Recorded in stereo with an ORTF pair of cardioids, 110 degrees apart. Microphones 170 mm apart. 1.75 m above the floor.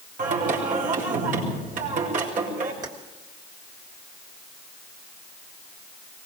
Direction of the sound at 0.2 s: 50° right.